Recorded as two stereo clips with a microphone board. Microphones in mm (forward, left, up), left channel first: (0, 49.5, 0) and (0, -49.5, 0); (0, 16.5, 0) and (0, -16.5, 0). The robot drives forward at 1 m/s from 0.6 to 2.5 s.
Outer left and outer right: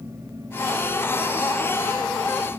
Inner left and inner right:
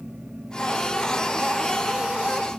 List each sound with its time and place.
Only background noise.